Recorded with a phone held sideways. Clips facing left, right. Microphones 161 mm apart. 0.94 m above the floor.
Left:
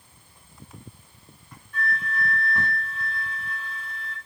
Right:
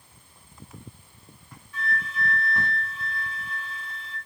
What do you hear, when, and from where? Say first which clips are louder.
1.7 s a flute: left 2 dB; 50° left (ahead or behind), 1.1 m